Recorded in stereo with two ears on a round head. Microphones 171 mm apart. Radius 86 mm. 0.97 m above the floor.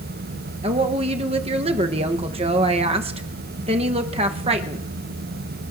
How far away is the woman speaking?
About 0.9 m.